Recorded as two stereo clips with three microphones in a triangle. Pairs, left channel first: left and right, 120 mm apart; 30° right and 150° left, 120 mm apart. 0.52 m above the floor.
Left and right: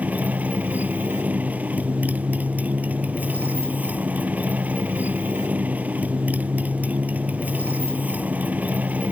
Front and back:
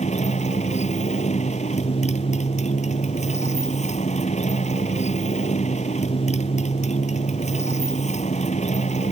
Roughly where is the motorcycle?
Ahead.